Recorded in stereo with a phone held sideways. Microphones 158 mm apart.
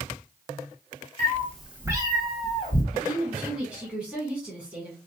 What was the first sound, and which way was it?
A cat meowing, 25° left (ahead or behind).